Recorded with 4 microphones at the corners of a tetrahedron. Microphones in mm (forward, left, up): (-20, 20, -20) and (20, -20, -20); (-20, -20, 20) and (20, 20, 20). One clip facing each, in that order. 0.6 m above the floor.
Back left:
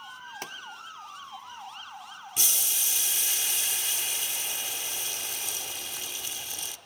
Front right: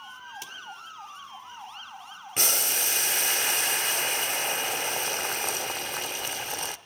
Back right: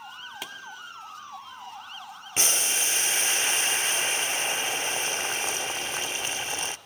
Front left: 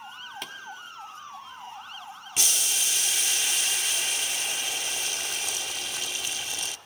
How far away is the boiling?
About 0.5 m.